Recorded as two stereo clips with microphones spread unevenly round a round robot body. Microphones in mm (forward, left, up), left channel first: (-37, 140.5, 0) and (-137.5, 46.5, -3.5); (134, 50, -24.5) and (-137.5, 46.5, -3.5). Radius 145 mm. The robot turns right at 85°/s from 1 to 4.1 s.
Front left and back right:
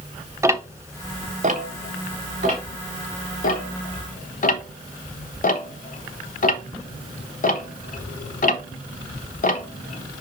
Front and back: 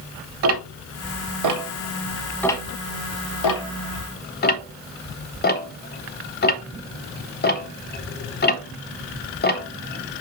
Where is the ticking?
150° left, 1.0 m; by 10.2 s 55° left, 1.0 m.